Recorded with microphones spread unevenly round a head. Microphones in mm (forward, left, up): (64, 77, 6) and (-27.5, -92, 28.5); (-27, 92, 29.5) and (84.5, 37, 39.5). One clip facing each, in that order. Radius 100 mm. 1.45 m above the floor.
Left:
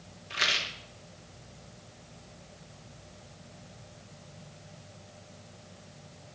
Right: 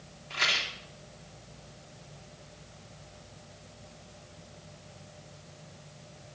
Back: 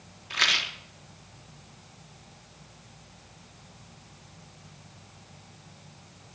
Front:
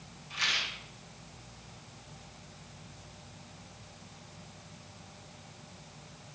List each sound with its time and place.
0.3 s a rattle: 140° left, 1.0 m